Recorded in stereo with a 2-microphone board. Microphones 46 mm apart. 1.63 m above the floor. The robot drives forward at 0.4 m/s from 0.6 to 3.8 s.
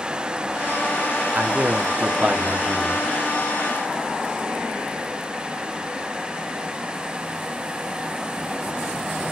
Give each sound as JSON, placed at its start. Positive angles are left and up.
{"t": 1.4, "sound": "a man speaking", "side_deg": -45, "distance_m": 1.0}